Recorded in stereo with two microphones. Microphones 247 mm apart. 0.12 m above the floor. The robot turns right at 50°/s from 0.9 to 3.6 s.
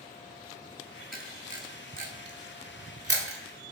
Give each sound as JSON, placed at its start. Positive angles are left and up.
{"t": 1.1, "sound": "a camera shutter", "side_deg": 0, "distance_m": 0.6}